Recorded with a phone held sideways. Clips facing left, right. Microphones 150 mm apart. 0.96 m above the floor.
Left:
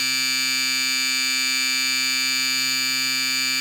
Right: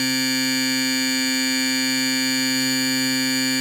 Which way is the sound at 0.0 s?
55° right (ahead or behind).